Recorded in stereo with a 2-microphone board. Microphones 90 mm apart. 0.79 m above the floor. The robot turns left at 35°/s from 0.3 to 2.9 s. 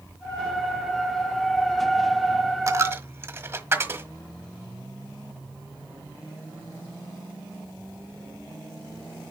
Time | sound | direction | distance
2.7 | a dropped coin | 35° right (ahead or behind) | 1.3 m